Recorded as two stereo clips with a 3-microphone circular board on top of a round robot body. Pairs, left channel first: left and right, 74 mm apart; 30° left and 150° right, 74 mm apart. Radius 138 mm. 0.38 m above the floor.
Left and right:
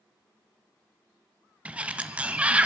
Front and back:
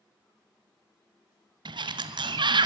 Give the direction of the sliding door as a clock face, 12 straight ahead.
5 o'clock.